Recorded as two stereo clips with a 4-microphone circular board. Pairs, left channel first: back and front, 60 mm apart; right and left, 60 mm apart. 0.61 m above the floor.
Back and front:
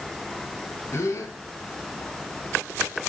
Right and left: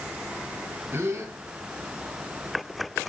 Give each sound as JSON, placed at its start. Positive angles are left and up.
{"t": 0.9, "sound": "a gasp", "azimuth_deg": 140, "distance_m": 5.5}